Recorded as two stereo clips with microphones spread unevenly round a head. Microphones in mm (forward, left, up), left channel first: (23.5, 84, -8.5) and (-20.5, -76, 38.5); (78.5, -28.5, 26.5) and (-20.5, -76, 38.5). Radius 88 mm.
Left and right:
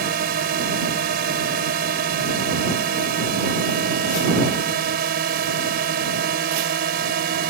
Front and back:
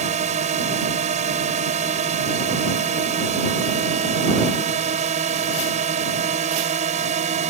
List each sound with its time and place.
0.0 s a drone: 140° right